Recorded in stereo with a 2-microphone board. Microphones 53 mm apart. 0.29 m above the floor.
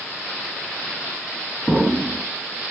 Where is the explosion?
5° right (ahead or behind), 1.0 m.